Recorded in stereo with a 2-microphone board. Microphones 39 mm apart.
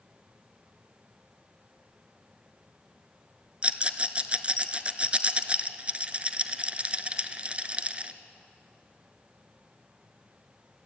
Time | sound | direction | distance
3.6 | a rattle | 30° right (ahead or behind) | 0.8 m